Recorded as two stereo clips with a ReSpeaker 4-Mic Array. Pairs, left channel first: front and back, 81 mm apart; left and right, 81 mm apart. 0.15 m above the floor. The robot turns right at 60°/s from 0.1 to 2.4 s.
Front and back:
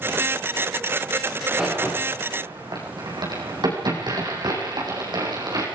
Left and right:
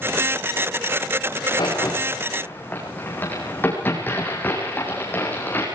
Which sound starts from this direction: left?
A crack, at 1.3 s.